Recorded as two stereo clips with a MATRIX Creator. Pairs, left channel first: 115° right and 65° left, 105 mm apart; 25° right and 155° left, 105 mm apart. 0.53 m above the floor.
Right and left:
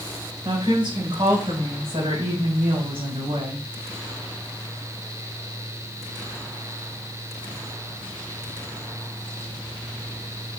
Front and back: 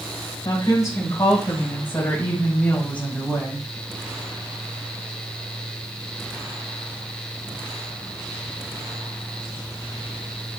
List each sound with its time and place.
0.5 s a woman speaking: 25° left, 3.5 m; by 3.6 s 65° left, 3.5 m